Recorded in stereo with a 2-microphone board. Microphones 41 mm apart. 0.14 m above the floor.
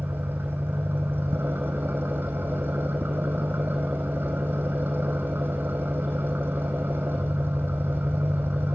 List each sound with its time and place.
0.0 s an engine running: 60° right (ahead or behind), 3.5 m